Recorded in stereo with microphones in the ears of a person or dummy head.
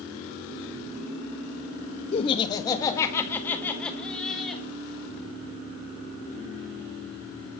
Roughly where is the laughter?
Left.